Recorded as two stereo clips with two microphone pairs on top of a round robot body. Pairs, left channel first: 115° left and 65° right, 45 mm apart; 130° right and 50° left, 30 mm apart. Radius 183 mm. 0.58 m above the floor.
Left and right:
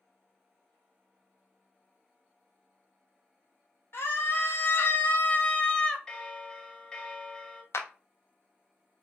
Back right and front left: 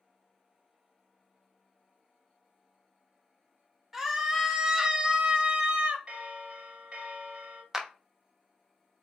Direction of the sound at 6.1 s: 50° left.